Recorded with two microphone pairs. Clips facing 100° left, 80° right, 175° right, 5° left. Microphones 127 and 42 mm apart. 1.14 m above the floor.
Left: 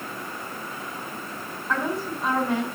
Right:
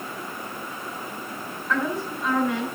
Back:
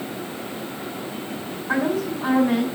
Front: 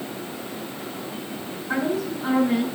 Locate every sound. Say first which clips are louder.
1.7 s a woman speaking: right 1 dB, back 2 dB; 160° left, 4.5 m